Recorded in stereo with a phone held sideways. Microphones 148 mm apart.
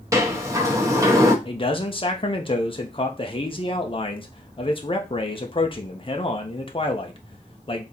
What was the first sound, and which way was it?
A sliding door, 20° right (ahead or behind).